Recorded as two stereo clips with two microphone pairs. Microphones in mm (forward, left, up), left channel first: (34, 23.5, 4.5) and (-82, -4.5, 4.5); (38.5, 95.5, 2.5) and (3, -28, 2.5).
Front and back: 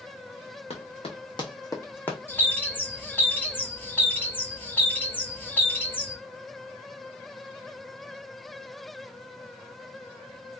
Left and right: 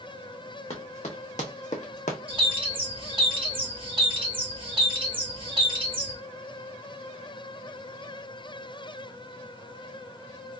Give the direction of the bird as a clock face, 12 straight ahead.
2 o'clock.